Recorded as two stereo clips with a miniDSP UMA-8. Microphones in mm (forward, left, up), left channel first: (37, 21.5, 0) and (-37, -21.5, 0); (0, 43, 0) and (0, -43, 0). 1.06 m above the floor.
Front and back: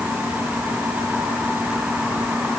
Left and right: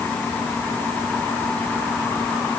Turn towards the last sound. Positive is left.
No sound to turn to.